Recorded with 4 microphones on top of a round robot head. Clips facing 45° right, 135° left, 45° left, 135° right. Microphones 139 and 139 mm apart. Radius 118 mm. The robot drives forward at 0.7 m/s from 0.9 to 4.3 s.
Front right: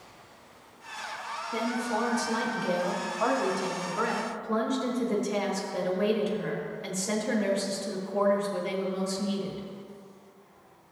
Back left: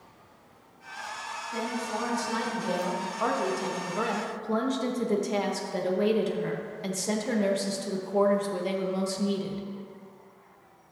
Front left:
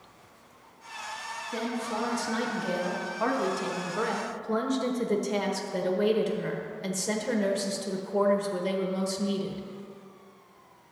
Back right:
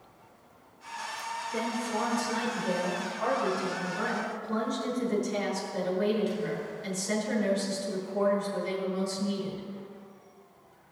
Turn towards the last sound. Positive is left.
turn(degrees=80)